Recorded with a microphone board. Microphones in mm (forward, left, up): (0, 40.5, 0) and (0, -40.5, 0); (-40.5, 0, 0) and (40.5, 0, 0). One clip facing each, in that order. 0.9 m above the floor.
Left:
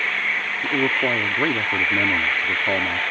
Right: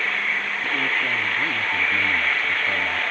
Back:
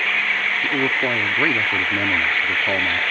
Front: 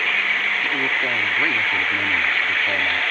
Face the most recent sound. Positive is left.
turn(degrees=115)